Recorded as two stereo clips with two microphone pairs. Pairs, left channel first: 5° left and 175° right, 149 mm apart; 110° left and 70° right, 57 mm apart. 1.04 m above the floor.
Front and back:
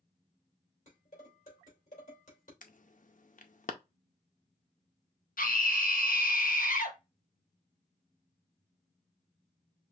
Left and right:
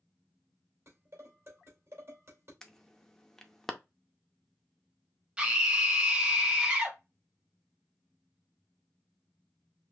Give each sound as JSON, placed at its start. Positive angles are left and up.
{"t": 0.9, "sound": "dishes clattering", "azimuth_deg": -30, "distance_m": 3.0}
{"t": 2.6, "sound": "an alarm", "azimuth_deg": 30, "distance_m": 0.6}
{"t": 5.4, "sound": "a scream", "azimuth_deg": 5, "distance_m": 1.4}